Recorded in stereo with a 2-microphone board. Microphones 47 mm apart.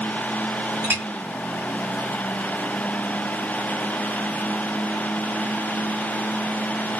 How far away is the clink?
About 1.8 m.